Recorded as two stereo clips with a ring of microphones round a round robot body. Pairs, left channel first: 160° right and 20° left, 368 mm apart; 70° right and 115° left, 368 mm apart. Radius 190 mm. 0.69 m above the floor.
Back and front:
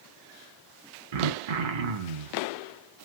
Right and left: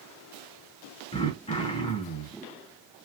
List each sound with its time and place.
1.1 s throat clearing: 10° left, 0.6 m